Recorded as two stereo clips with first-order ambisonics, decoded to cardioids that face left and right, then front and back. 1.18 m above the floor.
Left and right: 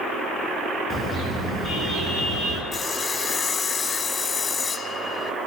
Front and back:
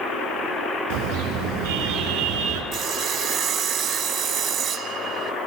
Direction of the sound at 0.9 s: 165° left.